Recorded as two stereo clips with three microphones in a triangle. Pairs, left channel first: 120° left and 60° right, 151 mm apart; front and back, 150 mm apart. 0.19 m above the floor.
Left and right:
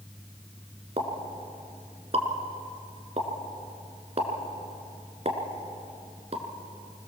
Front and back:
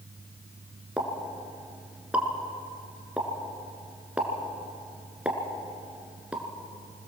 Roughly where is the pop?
Right.